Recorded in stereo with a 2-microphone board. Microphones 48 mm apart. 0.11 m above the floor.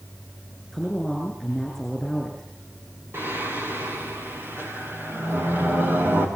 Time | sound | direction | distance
0.7 | a woman speaking | 10° left (ahead or behind) | 6.5 m
3.1 | singing | 55° right (ahead or behind) | 6 m